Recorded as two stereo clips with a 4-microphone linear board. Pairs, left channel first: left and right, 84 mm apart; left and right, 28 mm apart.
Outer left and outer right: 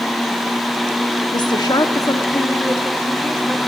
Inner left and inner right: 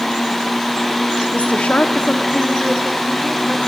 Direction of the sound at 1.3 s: 55° left (ahead or behind).